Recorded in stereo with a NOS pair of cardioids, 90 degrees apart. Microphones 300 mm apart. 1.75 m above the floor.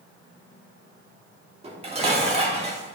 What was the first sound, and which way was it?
Dishes clattering, 20° right.